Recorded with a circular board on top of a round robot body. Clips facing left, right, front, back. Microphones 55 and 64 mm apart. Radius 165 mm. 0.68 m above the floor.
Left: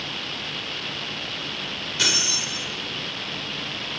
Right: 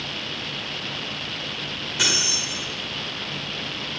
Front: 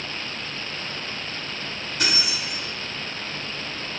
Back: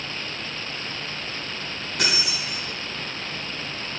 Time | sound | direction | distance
2.0 | keys jangling | 165° right | 4 m